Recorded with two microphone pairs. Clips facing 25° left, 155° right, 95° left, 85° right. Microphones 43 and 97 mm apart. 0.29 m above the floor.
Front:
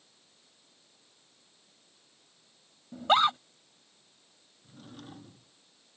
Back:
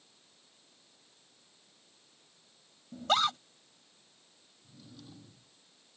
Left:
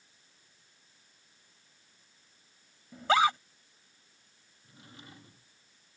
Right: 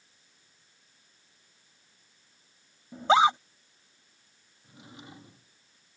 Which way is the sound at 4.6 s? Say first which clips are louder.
Front 5 dB, right 4 dB; 15° right.